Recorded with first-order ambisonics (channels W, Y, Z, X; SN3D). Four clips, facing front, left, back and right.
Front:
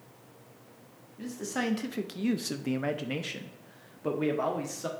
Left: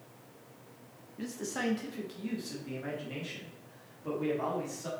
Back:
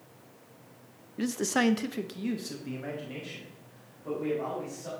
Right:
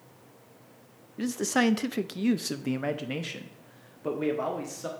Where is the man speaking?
145° right, 0.6 m; by 4.9 s 35° right, 1.7 m.